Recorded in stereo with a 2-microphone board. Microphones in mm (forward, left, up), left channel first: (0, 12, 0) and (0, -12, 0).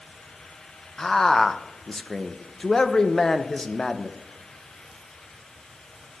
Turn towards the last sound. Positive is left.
turn(degrees=20)  # may be behind; listen again after turning